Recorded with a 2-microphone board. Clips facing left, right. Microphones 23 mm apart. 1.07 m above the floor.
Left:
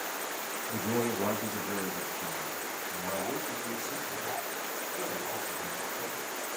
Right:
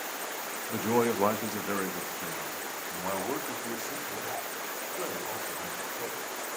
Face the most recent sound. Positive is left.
turn(degrees=-45)  # may be behind; listen again after turning